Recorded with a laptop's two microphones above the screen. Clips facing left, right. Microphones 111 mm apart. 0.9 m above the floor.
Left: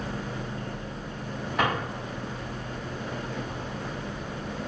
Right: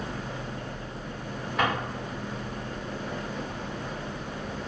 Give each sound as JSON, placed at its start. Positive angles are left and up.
{"t": 1.6, "sound": "a drawer", "side_deg": 5, "distance_m": 1.1}